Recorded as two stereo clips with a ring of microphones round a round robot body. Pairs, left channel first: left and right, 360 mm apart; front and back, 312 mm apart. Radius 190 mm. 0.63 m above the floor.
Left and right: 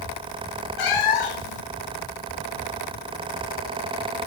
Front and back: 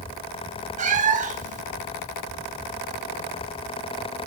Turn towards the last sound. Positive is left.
turn(degrees=115)